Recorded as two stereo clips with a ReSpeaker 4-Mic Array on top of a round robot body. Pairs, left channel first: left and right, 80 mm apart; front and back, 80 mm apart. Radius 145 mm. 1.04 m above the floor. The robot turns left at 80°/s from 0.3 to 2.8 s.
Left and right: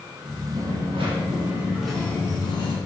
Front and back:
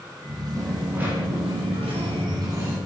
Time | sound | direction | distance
0.5 | a dropped coin | 75° right | 3 m